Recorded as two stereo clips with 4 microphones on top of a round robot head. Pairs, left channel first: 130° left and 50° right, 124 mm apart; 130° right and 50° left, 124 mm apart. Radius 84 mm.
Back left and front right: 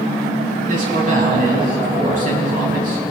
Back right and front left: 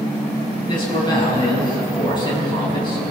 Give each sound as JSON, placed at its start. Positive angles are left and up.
{"t": 0.7, "sound": "a man speaking", "azimuth_deg": -75, "distance_m": 7.5}